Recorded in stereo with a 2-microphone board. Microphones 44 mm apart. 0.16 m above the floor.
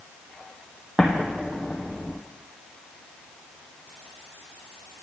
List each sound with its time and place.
1.0 s an explosion: 10° right (ahead or behind), 1.6 m